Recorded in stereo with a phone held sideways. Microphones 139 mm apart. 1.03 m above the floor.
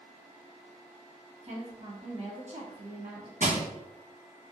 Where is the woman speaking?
65° right (ahead or behind), 1.2 m.